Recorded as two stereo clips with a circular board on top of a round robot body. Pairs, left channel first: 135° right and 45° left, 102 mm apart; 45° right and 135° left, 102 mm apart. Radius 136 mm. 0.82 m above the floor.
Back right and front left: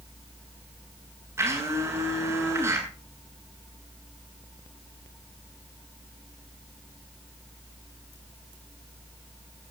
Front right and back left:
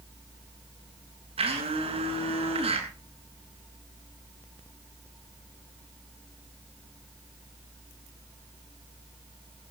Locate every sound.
1.4 s a blender: 110° left, 8 m